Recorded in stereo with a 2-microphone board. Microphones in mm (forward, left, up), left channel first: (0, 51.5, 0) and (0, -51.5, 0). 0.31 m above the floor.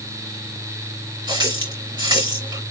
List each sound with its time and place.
1.3 s a running tap: 45° right (ahead or behind), 3 m